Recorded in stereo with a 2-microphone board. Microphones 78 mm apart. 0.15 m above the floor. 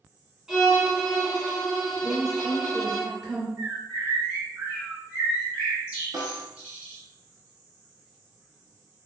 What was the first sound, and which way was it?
A violin, 5° right (ahead or behind).